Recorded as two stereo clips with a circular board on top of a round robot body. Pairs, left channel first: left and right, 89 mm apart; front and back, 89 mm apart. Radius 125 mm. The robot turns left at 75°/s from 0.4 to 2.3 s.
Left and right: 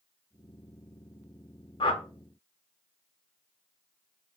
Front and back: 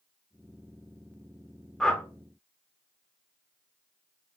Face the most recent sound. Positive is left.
turn(degrees=50)